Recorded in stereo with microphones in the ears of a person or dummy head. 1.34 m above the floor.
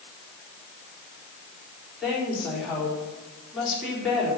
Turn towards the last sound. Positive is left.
turn(degrees=0)  # may be behind; listen again after turning